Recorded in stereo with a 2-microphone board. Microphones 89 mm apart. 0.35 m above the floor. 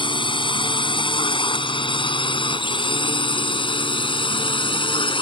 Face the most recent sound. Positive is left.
turn(degrees=70)  # may be behind; listen again after turning